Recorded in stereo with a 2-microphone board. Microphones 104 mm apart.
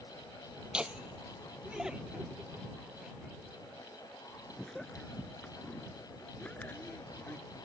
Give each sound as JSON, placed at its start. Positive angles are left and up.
{"t": 0.7, "sound": "laughter", "side_deg": -10}